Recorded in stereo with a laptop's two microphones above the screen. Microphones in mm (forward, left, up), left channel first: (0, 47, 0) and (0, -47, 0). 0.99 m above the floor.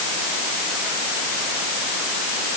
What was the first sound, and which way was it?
Only background noise.